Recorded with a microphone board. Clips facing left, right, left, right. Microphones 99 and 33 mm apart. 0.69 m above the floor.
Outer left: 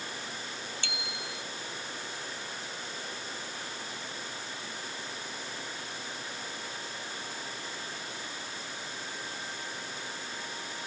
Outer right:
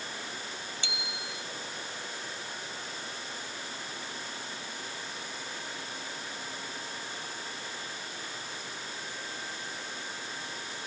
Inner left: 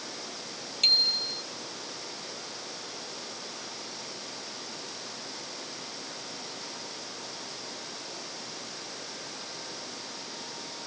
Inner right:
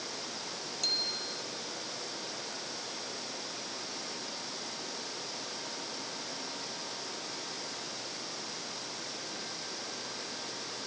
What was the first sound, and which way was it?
A bicycle bell, 60° left (ahead or behind).